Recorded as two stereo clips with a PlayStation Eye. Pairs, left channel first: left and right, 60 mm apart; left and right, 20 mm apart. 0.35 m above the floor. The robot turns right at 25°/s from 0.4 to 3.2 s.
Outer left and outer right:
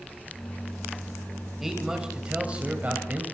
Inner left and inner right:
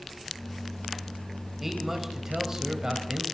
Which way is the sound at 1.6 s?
175° right.